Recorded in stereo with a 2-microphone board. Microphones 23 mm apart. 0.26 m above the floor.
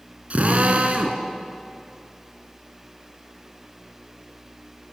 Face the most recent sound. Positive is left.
turn(degrees=-70)  # may be behind; listen again after turning